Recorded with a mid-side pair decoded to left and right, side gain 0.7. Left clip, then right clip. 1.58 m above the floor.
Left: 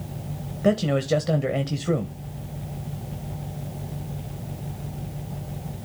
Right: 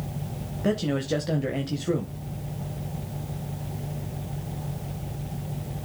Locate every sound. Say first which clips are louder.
0.6 s a man speaking: left 5 dB; 20° left, 1.3 m